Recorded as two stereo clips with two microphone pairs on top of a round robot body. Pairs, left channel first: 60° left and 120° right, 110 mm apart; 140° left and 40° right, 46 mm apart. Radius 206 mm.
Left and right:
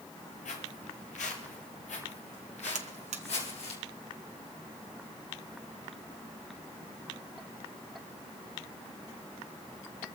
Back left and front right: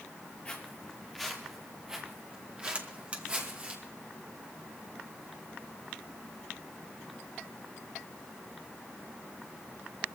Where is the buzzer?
105° right, 0.9 m.